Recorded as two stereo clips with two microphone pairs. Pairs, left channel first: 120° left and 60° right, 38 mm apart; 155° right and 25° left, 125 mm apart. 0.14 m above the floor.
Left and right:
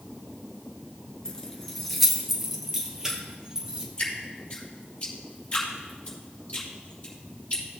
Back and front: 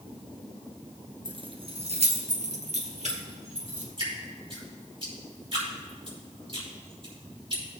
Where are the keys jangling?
60° left, 1.2 m; by 3.9 s 10° left, 3 m.